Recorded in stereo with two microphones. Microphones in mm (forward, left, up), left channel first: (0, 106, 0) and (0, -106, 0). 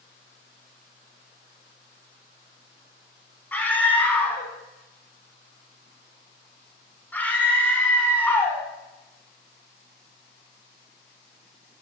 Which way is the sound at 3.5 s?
10° left (ahead or behind).